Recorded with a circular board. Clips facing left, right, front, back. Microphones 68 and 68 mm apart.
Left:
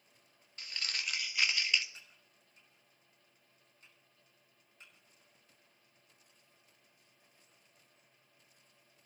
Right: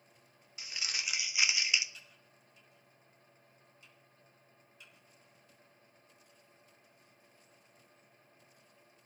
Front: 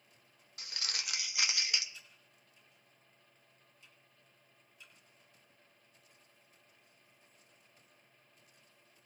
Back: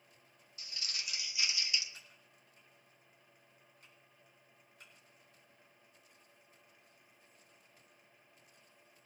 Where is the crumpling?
10° right, 1.1 m.